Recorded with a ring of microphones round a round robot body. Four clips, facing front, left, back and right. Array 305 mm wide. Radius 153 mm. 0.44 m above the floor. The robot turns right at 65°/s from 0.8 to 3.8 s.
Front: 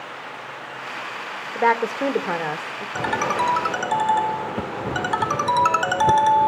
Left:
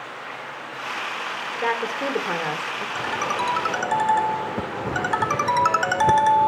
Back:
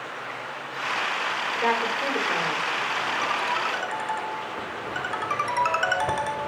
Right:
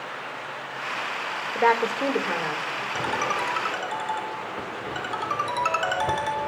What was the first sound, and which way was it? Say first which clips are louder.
A woman speaking: right 4 dB, front 7 dB; 35° right.